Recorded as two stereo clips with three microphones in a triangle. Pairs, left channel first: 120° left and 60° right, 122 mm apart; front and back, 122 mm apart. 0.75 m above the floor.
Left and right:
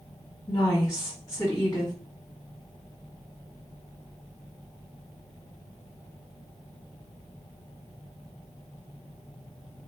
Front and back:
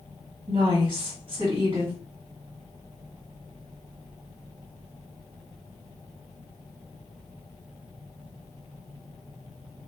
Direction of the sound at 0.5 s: 170° left.